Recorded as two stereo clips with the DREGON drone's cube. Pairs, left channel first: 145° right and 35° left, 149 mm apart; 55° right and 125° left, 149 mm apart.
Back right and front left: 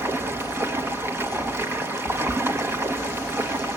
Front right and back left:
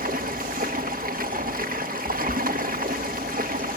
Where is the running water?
110° left, 1.4 m.